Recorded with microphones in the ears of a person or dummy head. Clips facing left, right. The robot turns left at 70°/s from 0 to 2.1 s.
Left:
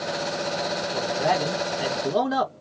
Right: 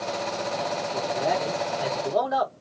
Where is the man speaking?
125° left, 1.3 m; by 2.5 s 45° left, 1.3 m.